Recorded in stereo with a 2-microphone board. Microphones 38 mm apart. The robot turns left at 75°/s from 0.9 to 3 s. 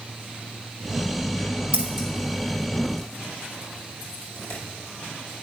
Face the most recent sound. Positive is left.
turn(degrees=65)  # may be behind; listen again after turning